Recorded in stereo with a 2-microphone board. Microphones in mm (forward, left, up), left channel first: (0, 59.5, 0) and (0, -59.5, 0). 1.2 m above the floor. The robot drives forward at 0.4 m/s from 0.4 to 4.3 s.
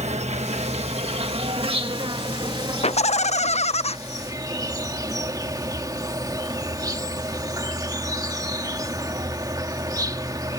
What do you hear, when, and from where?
0.0 s an insect: 70° right (ahead or behind); by 10.6 s 30° right (ahead or behind)
2.8 s laughter: 60° left (ahead or behind)